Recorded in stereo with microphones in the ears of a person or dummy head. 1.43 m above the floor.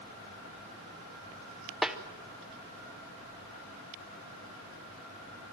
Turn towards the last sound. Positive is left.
turn(degrees=0)  # may be behind; listen again after turning